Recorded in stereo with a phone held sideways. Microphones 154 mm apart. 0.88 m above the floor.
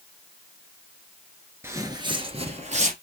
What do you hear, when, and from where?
1.6 s footsteps: 15° right (ahead or behind), 0.8 m; by 2.9 s 50° right (ahead or behind), 1.3 m